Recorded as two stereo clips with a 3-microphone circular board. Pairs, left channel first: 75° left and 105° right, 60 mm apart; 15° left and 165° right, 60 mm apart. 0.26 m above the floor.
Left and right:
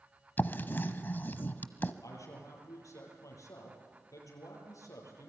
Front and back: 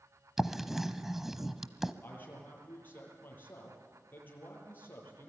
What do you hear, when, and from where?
0.4 s writing: 115° left, 1.0 m
2.0 s a man speaking: 70° left, 8 m